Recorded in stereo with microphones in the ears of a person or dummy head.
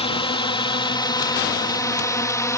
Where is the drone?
30° left (ahead or behind); by 2.6 s 15° left (ahead or behind).